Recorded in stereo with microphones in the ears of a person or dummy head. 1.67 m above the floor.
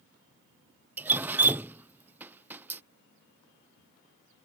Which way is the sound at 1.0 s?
15° right (ahead or behind).